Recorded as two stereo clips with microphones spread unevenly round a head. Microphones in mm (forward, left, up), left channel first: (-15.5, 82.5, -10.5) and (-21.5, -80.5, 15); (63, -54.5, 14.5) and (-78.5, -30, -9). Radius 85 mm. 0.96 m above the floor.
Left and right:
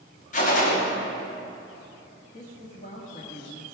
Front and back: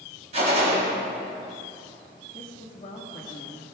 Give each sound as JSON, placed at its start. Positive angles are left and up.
{"t": 0.3, "sound": "a gunshot", "azimuth_deg": 125, "distance_m": 2.0}
{"t": 2.3, "sound": "a woman speaking", "azimuth_deg": 50, "distance_m": 1.4}